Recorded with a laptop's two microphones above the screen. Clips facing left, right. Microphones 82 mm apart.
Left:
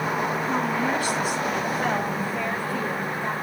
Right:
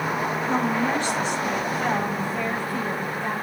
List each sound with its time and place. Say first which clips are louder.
0.5 s a woman speaking: right 4 dB; 5° left (ahead or behind), 5.5 m; by 3.3 s 15° left (ahead or behind), 4 m